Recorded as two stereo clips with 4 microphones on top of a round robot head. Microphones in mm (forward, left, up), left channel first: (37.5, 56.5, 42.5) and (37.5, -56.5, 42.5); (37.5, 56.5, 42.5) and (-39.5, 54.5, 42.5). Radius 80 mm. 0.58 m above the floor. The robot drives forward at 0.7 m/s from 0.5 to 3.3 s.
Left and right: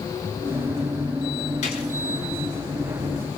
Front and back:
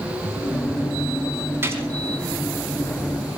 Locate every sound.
1.6 s a gunshot: 125° left, 6 m